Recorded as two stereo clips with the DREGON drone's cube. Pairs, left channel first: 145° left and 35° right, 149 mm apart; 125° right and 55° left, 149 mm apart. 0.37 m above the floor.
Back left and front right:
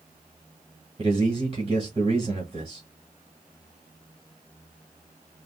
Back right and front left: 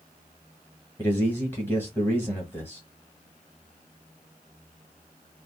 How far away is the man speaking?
About 1.2 m.